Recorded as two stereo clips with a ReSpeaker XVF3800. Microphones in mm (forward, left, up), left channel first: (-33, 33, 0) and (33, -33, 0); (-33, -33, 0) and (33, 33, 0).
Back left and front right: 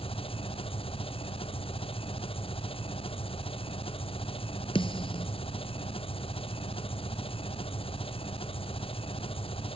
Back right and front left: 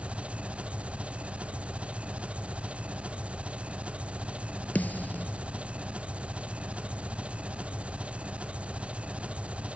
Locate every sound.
0.0 s an engine running: 125° left
4.8 s a snare drum: 155° left